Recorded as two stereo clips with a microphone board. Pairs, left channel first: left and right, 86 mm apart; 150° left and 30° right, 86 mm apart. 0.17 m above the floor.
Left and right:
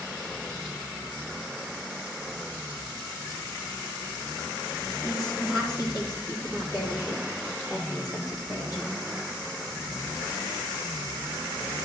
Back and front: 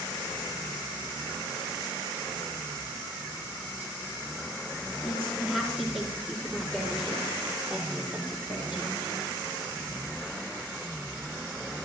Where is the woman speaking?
65° left, 4.5 m; by 9.1 s 45° left, 6 m.